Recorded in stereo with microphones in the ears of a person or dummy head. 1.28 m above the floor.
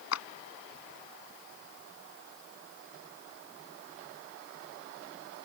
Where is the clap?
90° left.